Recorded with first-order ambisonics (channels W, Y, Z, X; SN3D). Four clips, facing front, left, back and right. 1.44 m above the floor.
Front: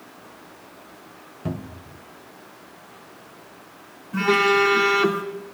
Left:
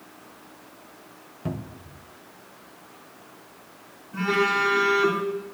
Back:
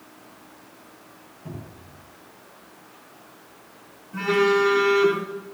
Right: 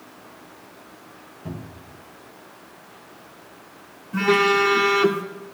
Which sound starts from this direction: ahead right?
A phone buzzing, at 4.1 s.